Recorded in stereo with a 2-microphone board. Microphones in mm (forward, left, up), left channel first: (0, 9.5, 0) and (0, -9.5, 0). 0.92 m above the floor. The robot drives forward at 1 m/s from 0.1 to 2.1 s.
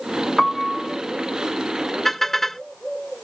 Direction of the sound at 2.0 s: 10° left (ahead or behind).